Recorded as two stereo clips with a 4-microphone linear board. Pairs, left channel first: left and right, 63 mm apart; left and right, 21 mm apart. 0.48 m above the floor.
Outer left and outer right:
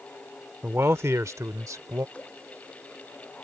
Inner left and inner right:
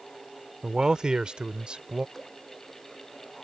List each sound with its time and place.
0.6 s a man speaking: 35° right (ahead or behind); by 2.0 s 60° right (ahead or behind)
2.1 s dripping: 20° left (ahead or behind)